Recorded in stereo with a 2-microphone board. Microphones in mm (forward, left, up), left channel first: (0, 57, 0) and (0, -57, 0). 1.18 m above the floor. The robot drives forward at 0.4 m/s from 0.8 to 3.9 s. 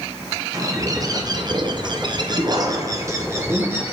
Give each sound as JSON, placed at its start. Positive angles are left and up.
{"t": 0.5, "sound": "a bird", "side_deg": -30, "distance_m": 0.6}